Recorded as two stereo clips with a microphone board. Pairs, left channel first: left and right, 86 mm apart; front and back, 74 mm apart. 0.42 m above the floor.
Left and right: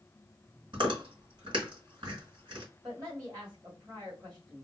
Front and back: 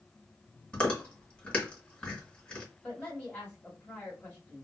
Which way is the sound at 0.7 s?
75° right.